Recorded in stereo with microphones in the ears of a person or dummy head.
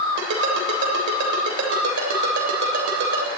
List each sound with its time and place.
0.2 s a ringtone: 75° right (ahead or behind), 3 m